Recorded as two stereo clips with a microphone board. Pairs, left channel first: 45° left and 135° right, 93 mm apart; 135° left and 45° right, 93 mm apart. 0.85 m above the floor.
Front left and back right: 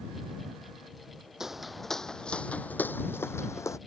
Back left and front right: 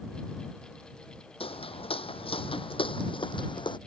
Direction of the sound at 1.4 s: 140° left.